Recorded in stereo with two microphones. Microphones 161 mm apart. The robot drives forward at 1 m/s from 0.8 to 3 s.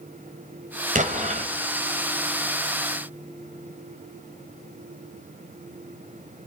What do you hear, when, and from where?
0.9 s an explosion: 55° right (ahead or behind), 2.5 m; by 1.5 s 50° right (ahead or behind), 2.5 m